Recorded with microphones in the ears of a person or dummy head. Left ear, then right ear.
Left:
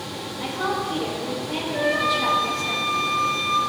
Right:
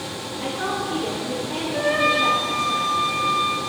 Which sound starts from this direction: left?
A woman speaking, at 0.4 s.